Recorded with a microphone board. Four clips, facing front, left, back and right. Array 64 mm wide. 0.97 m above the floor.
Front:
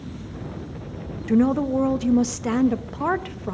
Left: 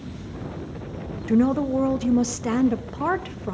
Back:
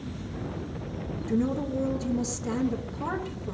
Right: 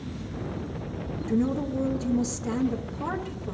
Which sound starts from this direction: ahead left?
A woman speaking, at 1.3 s.